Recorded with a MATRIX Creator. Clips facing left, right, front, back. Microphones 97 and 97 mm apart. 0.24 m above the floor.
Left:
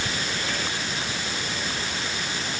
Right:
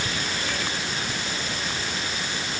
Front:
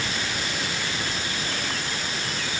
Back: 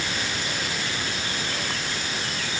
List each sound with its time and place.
Only background noise.